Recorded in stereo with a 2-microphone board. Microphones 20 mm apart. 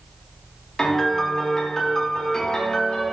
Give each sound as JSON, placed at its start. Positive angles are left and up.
{"t": 0.8, "sound": "a piano", "side_deg": 30, "distance_m": 1.0}